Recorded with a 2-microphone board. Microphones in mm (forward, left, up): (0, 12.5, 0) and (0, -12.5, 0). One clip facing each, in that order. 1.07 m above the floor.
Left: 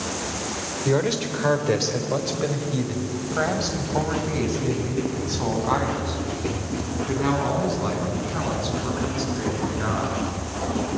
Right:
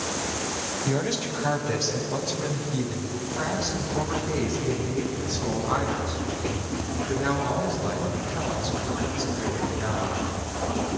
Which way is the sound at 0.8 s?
50° left (ahead or behind).